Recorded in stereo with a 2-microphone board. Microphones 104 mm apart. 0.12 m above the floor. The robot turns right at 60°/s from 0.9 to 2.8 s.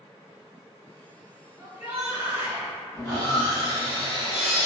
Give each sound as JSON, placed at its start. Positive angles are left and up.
{"t": 1.6, "sound": "a shout", "side_deg": -25, "distance_m": 1.2}
{"t": 3.0, "sound": "sawing", "side_deg": 30, "distance_m": 1.6}